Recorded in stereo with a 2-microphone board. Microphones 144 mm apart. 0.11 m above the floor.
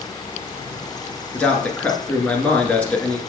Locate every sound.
1.3 s a man speaking: 10° left (ahead or behind), 1.4 m